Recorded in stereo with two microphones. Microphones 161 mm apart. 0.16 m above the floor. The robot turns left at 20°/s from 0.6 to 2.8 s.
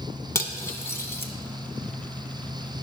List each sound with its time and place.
0.3 s cutlery clinking: 20° left (ahead or behind), 0.6 m; by 1.3 s 15° left (ahead or behind), 0.6 m